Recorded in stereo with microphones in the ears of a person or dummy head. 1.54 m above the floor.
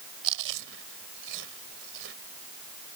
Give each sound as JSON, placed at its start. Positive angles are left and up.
{"t": 0.2, "sound": "chewing", "side_deg": -70}